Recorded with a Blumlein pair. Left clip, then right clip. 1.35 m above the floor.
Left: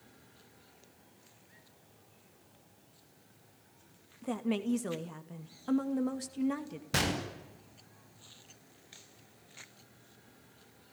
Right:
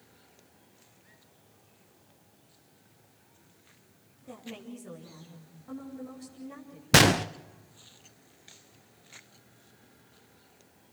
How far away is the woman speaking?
About 2.5 m.